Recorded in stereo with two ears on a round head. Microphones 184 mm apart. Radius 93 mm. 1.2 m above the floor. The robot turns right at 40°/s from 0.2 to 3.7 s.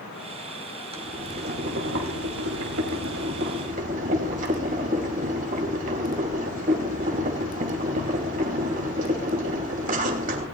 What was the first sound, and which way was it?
Boiling, 150° right.